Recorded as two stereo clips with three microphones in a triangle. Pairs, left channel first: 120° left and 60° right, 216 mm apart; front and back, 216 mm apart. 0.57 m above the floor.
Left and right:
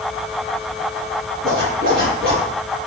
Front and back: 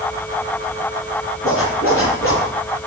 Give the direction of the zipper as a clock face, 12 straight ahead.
1 o'clock.